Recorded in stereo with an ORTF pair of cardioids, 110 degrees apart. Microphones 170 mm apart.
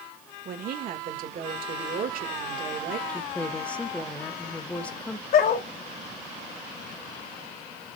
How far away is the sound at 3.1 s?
About 1.2 m.